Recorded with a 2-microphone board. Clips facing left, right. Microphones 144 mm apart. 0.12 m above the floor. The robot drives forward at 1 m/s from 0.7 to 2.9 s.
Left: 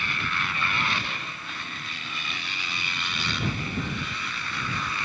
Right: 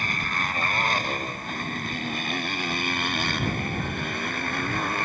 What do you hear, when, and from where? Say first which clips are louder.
0.0 s a motorcycle: right 2 dB; 45° right (ahead or behind); by 5.0 s 50° right (ahead or behind)